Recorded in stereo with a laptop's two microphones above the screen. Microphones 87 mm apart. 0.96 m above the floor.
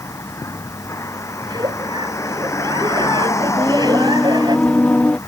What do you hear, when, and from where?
0.0 s a vehicle: 30° left (ahead or behind)
1.4 s a giggle: 50° right (ahead or behind)
3.6 s singing: 15° left (ahead or behind)